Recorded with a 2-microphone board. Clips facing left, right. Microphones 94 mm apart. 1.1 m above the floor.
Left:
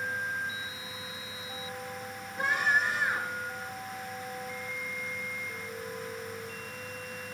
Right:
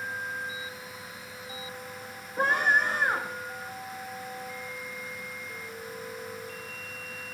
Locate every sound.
2.4 s a scream: 45° right (ahead or behind), 2.5 m